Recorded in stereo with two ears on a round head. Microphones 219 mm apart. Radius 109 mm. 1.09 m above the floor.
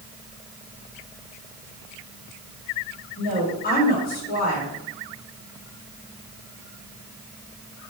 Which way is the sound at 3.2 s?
35° left (ahead or behind).